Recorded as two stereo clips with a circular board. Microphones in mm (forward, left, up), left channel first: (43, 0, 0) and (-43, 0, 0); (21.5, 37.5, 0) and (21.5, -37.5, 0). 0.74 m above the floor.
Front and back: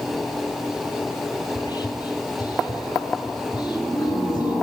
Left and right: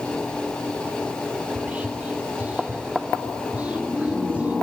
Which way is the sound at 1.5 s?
20° right.